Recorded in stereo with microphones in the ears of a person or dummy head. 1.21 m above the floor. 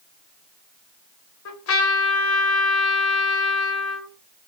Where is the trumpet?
65° left (ahead or behind), 1.1 m.